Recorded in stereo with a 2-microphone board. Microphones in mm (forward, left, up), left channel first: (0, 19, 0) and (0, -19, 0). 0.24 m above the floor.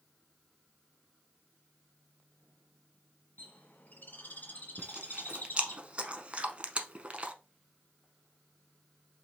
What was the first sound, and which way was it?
A bird, 55° left (ahead or behind).